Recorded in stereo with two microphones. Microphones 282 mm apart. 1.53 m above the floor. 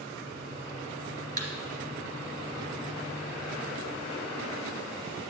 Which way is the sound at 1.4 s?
25° right (ahead or behind).